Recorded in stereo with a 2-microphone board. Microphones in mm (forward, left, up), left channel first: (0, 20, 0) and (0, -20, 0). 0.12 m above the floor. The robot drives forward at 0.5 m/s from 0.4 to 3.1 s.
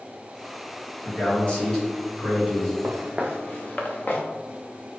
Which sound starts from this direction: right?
Footsteps, at 2.8 s.